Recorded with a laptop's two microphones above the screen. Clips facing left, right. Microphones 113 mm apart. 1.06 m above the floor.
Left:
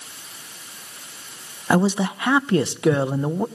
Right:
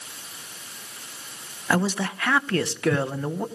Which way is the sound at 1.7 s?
20° left (ahead or behind).